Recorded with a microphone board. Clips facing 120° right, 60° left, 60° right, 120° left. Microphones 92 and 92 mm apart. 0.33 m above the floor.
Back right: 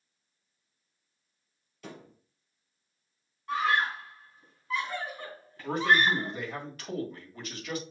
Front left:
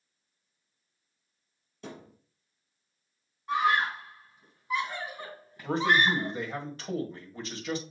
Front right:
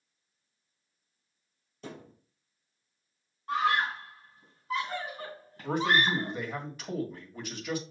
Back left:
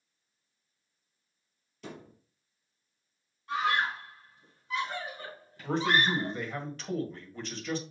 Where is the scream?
15° right, 2.5 m.